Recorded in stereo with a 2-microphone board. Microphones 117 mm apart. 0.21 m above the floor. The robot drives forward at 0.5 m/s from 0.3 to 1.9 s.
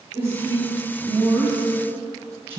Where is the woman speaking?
20° right (ahead or behind), 1.5 m.